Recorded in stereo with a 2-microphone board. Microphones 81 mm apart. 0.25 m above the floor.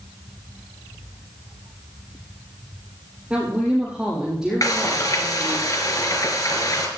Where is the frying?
50° left (ahead or behind), 3 m.